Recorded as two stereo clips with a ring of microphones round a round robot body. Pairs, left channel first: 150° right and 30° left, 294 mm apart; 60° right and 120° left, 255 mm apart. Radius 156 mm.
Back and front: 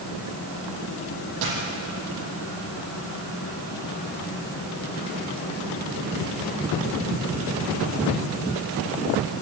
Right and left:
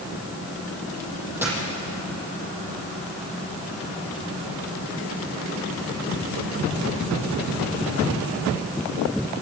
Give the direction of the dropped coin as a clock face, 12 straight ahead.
11 o'clock.